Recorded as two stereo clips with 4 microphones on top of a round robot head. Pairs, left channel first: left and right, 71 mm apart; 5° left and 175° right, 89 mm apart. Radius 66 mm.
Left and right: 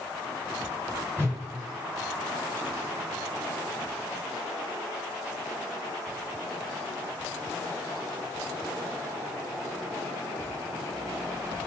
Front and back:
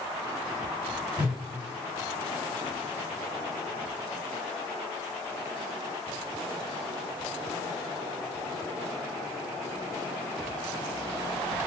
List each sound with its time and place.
1.1 s a whoosh: 120° left, 1.4 m